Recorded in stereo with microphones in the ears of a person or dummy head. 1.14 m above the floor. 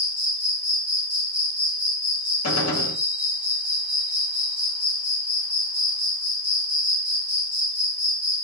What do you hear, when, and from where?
0.0 s an insect: 15° right (ahead or behind), 0.8 m
2.4 s a gunshot: 80° left, 1.2 m